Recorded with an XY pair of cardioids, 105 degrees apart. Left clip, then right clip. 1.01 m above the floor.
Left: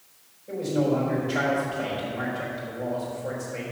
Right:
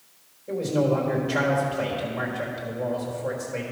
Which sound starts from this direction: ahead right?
A man speaking, at 0.5 s.